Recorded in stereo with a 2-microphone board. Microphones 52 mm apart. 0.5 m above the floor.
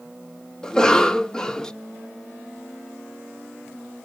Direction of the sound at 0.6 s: 15° left (ahead or behind).